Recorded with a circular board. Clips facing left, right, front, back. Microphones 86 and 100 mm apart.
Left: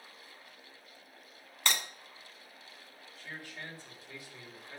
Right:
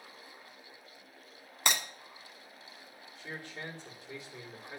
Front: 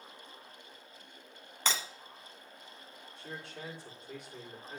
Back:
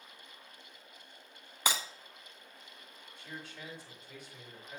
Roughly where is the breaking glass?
Behind right.